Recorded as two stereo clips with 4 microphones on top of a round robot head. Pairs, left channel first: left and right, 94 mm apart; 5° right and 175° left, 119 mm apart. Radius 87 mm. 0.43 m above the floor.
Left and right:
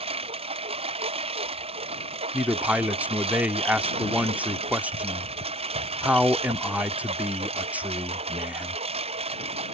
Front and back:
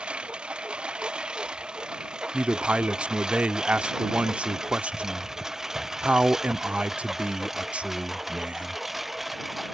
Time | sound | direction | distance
0.0 | a lawn mower | 100° right | ?
2.3 | a man speaking | 125° right | ?